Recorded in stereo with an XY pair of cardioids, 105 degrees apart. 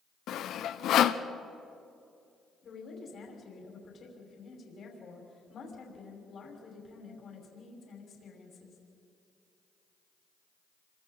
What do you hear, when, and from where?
0.3 s sawing: 70° left, 0.8 m
2.6 s a woman speaking: 50° left, 5.5 m